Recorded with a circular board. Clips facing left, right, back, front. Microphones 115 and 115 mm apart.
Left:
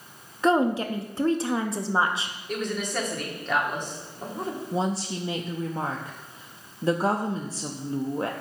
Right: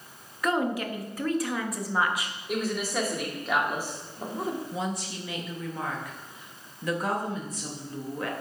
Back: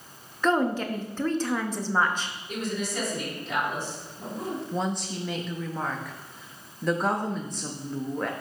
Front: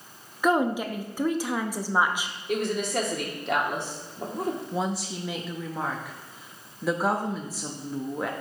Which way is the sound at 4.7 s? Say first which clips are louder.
Left 5 dB, even; 80° left.